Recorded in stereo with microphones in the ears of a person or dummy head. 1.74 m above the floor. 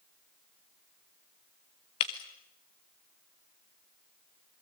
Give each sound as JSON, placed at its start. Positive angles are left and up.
{"t": 2.0, "sound": "breaking glass", "side_deg": 20, "distance_m": 1.0}